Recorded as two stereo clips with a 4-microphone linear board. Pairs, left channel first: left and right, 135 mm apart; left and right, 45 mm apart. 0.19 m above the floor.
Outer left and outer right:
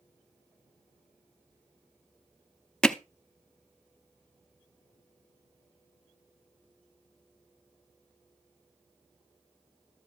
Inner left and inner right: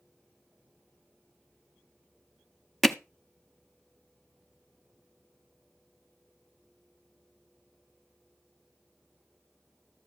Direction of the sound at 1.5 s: 70° left (ahead or behind).